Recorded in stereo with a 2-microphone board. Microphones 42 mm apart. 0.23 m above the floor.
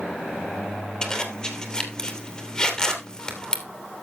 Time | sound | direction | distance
1.0 | a zipper | 20° left (ahead or behind) | 2.5 m